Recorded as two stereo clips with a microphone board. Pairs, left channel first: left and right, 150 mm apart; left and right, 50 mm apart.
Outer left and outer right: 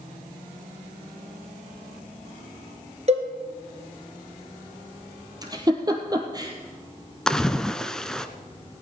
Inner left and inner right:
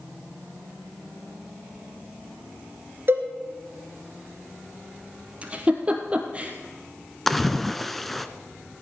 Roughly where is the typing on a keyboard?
I don't hear typing on a keyboard.